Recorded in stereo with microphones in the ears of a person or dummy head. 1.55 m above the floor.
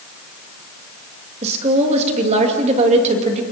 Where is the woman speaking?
35° right (ahead or behind), 2.5 m.